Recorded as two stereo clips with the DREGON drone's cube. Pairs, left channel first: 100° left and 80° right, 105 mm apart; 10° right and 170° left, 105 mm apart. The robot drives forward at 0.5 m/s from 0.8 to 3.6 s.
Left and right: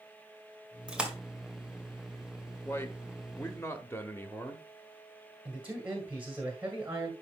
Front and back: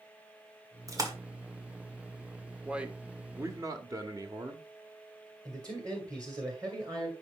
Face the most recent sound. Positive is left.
turn(degrees=-150)